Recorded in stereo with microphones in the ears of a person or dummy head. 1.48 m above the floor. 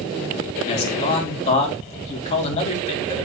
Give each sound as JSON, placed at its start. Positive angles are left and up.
{"t": 0.7, "sound": "a man speaking", "side_deg": 35, "distance_m": 3.5}